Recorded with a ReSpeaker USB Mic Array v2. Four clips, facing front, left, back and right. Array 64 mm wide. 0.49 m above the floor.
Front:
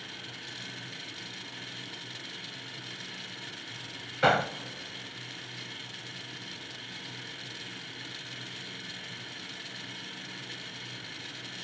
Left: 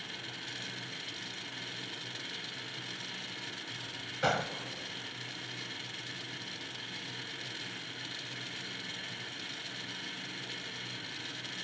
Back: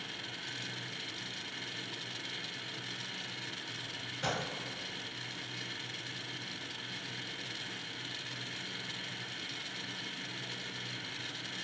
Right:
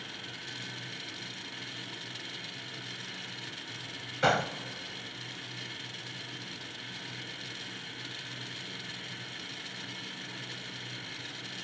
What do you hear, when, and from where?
4.2 s a gunshot: 15° right, 0.6 m